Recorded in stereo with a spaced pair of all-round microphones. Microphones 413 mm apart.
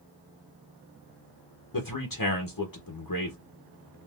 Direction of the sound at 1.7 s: 55° left (ahead or behind).